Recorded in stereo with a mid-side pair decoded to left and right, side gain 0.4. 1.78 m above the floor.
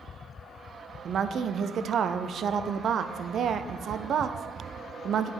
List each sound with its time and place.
1.1 s a woman speaking: 65° right, 0.5 m